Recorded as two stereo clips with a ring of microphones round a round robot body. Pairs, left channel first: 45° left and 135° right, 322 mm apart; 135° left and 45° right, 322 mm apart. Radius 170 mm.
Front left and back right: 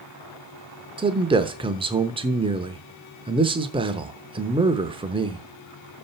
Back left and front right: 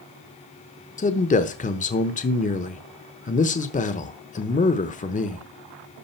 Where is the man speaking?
170° left, 0.9 m.